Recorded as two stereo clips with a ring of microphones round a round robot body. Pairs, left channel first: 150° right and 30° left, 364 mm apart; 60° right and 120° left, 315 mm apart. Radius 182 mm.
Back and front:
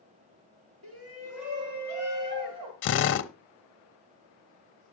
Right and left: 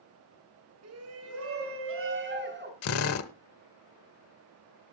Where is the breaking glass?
I don't hear breaking glass.